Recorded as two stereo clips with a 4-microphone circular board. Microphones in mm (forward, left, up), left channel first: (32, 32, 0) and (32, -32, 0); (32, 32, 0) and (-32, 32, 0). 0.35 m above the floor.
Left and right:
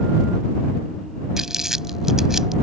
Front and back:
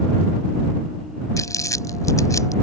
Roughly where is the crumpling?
Ahead.